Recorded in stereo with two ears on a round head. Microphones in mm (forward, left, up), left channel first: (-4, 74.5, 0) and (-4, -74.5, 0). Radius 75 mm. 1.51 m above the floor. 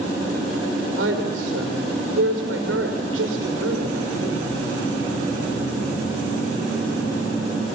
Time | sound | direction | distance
1.0 | a woman speaking | 90° right | 5.5 m